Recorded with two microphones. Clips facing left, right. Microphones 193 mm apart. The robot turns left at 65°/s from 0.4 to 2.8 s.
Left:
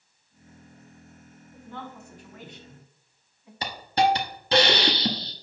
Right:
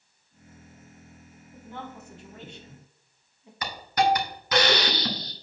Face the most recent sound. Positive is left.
turn(degrees=30)  # may be behind; listen again after turning